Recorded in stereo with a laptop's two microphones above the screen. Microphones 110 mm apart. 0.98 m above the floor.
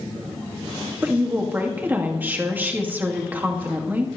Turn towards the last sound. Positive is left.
turn(degrees=-20)  # may be behind; listen again after turning